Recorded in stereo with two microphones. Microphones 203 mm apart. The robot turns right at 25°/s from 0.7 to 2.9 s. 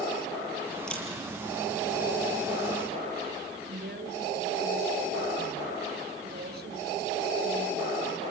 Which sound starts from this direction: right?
A woman speaking, at 3.7 s.